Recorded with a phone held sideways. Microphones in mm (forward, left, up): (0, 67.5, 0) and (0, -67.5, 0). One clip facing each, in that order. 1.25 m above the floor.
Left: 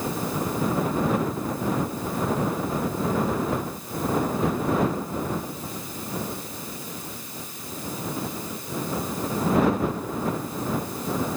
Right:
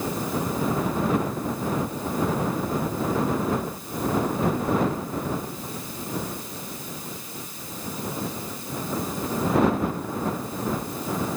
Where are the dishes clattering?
I don't hear dishes clattering.